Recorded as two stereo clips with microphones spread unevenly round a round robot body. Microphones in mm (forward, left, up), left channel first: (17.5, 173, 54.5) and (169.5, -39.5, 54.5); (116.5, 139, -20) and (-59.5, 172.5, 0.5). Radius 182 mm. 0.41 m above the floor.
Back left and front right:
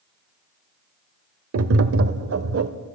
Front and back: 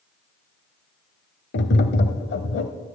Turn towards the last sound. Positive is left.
turn(degrees=-20)